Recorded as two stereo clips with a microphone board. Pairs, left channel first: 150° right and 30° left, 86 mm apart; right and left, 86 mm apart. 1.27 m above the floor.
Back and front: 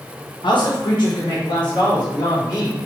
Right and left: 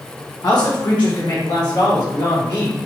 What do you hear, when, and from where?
0.4 s a man speaking: 130° right, 0.7 m; by 2.9 s 115° right, 3 m